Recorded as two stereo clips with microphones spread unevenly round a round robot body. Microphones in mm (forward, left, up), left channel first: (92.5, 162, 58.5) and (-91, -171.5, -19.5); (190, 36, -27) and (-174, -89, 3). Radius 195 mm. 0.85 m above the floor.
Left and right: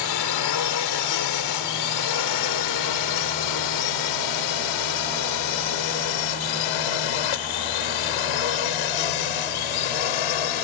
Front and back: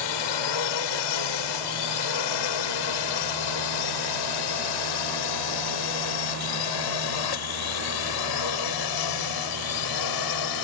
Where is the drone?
30° left; by 10.6 s 55° left.